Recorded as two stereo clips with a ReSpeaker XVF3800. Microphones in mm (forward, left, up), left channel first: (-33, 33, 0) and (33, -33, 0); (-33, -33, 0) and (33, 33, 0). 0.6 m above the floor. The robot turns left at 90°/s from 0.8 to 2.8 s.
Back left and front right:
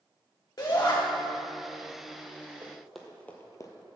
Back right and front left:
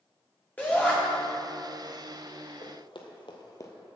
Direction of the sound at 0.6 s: 155° left.